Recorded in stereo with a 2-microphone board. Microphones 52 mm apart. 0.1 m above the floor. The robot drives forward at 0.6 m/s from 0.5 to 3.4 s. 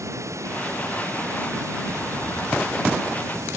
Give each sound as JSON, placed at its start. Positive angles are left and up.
{"t": 0.0, "sound": "running water", "side_deg": -80}